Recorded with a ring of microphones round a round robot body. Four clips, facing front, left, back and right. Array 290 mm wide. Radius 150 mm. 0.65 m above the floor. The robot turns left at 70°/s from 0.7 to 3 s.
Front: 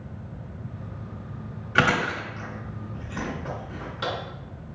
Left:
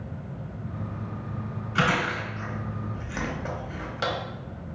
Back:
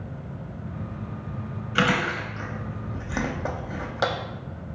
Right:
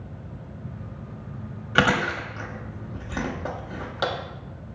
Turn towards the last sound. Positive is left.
turn(degrees=-155)